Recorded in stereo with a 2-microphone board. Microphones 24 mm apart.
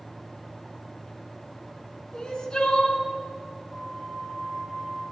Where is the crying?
30° left (ahead or behind), 2 m.